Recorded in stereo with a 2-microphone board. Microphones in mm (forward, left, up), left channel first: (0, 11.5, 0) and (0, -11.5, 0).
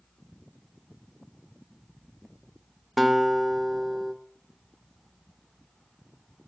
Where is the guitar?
5° left (ahead or behind), 0.7 m.